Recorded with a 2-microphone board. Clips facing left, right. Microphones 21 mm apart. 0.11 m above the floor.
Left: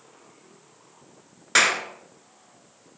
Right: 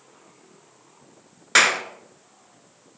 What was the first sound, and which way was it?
A clap, 15° right (ahead or behind).